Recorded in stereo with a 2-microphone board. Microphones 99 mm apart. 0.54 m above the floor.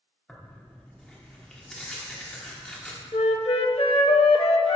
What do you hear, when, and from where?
0.3 s tearing paper: 10° left (ahead or behind), 1.2 m
3.1 s a flute: 70° left (ahead or behind), 0.5 m